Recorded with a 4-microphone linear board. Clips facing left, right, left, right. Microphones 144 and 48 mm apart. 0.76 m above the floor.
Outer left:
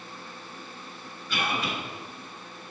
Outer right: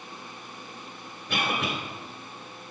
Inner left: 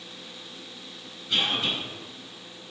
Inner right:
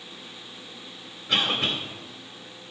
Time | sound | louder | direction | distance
1.3 | a cough | outer right 1 dB, inner right 2 dB | 70° right (ahead or behind) | 3 m